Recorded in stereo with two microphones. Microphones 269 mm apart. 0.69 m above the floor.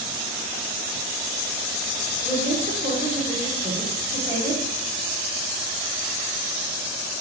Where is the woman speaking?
25° right (ahead or behind), 2.0 m.